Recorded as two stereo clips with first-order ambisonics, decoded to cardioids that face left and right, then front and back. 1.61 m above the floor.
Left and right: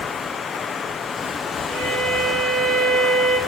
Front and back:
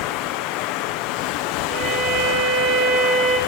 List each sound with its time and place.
0.0 s running water: 20° left, 0.9 m
1.7 s a violin: 150° right, 6 m